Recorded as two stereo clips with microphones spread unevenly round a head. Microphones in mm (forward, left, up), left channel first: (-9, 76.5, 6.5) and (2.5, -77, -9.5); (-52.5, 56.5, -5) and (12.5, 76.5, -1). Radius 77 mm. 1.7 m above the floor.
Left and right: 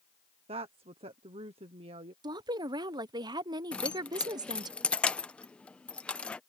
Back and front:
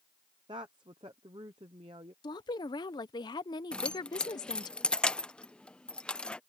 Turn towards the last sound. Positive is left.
turn(degrees=145)